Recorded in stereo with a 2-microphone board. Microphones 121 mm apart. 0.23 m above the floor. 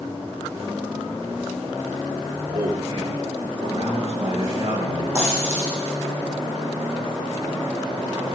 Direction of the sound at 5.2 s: 20° right (ahead or behind).